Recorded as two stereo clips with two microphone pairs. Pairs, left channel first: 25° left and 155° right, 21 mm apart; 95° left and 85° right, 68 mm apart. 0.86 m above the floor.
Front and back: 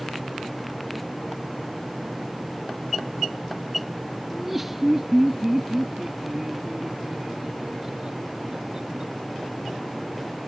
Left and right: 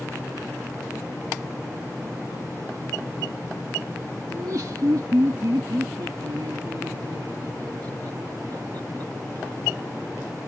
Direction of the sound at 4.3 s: 70° right.